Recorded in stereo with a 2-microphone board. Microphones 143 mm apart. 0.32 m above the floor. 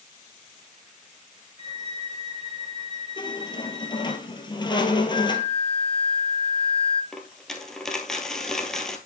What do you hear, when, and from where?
1.6 s a violin: 30° left (ahead or behind), 6 m
3.2 s a squeak: 30° left (ahead or behind), 1.3 m
5.1 s a flute: 45° left (ahead or behind), 1.0 m
7.1 s a dropped coin: 5° left (ahead or behind), 1.6 m